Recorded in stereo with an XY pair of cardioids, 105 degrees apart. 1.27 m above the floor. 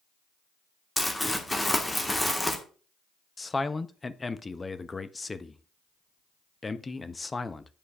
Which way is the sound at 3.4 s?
20° left.